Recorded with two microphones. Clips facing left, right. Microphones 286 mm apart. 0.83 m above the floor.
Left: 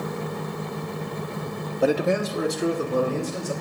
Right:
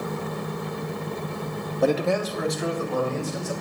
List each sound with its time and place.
1.8 s a man speaking: centre (ahead or behind), 0.6 m; by 3.5 s 45° left (ahead or behind), 3 m